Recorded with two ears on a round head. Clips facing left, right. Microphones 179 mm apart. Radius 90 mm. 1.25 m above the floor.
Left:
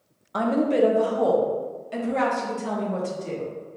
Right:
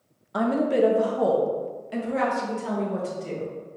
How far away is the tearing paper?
I don't hear tearing paper.